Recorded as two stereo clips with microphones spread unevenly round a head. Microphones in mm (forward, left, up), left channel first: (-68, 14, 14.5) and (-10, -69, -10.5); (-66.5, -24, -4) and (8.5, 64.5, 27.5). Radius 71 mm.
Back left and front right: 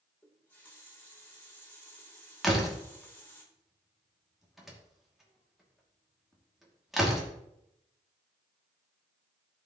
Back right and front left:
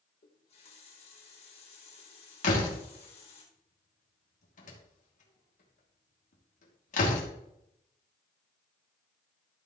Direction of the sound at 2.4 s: 145° right.